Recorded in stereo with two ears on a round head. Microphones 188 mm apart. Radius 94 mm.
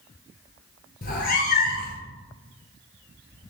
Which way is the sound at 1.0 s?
45° left (ahead or behind).